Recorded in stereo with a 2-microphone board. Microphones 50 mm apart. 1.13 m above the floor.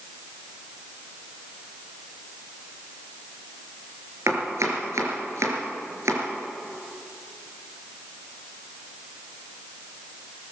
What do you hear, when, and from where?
4.3 s chopping: 70° right (ahead or behind), 5 m